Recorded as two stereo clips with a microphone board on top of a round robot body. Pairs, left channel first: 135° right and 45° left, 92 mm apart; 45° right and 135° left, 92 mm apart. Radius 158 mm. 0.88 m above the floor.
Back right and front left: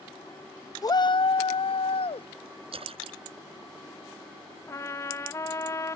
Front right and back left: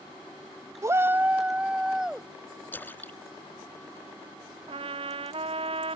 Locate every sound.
0.8 s a shout: 175° right; by 2.3 s 140° right
2.7 s a splash: 25° left
4.7 s a trumpet: 165° left